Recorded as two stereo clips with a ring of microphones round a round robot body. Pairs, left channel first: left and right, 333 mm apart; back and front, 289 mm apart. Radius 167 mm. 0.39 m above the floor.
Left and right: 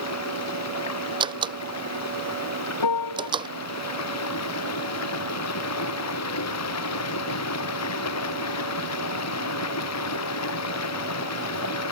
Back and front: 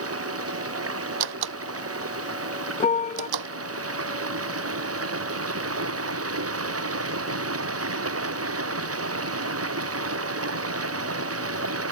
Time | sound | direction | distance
0.0 | running water | 40° left | ?
1.2 | a door slam | 15° right | ?
2.8 | a piano | 115° left | ?